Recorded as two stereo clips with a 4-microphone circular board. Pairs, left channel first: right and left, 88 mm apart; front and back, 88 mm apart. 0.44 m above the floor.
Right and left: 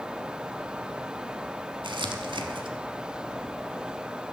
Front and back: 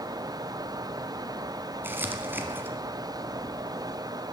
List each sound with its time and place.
1.8 s crumpling: 115° left, 1.1 m